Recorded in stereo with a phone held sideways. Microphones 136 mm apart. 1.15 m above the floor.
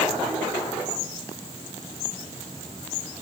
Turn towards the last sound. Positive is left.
No sound to turn to.